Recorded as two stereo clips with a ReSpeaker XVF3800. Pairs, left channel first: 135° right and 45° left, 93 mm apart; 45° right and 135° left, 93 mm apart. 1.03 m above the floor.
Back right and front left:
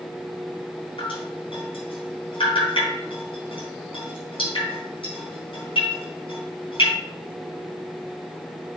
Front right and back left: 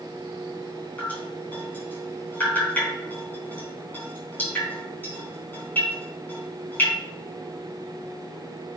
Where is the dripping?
115° right, 4 m.